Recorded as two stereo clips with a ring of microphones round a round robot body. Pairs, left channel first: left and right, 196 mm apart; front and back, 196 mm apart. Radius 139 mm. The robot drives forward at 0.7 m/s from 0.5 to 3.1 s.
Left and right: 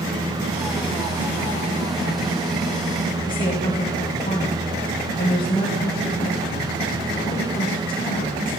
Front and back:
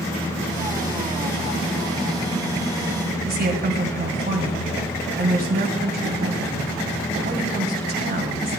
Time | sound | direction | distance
3.2 | a woman speaking | 155° left | 2.0 m